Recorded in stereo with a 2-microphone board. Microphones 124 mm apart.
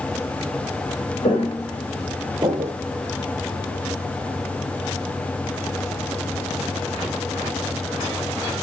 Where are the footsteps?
50° left (ahead or behind), 1.3 m; by 2.7 s 65° right (ahead or behind), 0.7 m.